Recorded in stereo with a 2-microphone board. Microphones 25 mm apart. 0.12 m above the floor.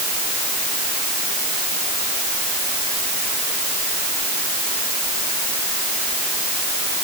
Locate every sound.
Only background noise.